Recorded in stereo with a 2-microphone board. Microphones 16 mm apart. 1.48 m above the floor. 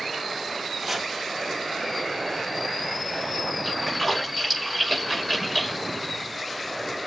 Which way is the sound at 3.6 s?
10° right (ahead or behind).